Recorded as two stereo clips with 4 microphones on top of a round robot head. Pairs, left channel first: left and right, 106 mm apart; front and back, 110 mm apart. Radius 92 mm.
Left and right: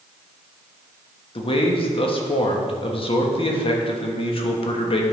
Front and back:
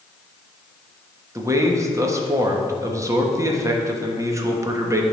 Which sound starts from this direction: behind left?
A man speaking, at 1.4 s.